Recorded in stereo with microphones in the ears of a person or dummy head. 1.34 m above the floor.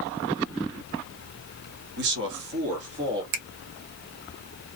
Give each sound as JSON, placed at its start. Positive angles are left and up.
{"t": 2.0, "sound": "a man speaking", "side_deg": -55, "distance_m": 0.9}
{"t": 3.3, "sound": "a finger snap", "side_deg": -50, "distance_m": 0.7}